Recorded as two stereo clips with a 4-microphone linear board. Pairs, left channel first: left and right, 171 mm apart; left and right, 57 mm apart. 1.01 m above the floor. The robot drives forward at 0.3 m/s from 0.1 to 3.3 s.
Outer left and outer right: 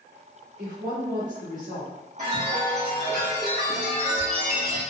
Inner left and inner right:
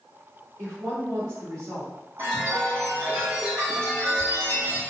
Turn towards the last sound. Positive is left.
turn(degrees=-40)  # may be behind; listen again after turning